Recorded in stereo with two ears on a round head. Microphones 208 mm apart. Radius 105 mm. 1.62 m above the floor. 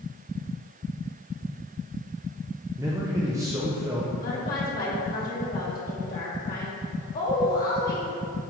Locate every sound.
2.8 s a man speaking: 15° right (ahead or behind), 0.6 m
4.2 s a woman speaking: 40° left (ahead or behind), 1.3 m